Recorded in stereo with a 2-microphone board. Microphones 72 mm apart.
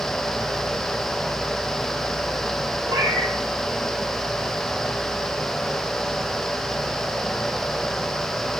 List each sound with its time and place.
2.9 s a cat meowing: 70° right (ahead or behind), 3 m